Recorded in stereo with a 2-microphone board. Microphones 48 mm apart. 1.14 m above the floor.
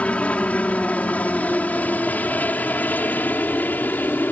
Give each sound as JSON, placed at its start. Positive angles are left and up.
{"t": 0.0, "sound": "a helicopter", "side_deg": 25}